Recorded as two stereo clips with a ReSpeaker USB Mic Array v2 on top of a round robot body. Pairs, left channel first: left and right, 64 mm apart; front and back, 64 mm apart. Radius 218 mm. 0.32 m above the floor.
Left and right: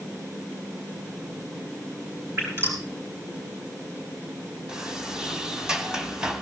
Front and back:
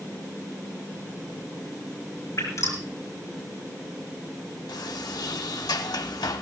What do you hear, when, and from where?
2.4 s dripping: 35° right, 7 m
4.7 s a sliding door: 10° right, 1.1 m